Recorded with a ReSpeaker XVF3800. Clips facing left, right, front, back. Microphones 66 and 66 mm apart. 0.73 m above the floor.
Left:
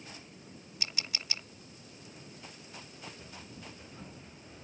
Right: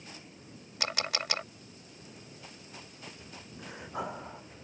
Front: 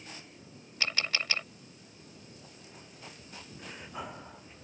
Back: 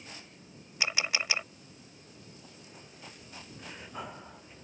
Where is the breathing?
90° right.